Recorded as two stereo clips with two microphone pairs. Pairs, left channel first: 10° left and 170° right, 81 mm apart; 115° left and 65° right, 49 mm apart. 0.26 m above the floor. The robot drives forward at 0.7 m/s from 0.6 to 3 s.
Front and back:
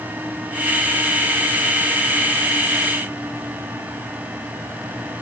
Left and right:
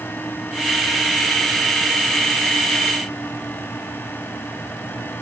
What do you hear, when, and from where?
Only background noise.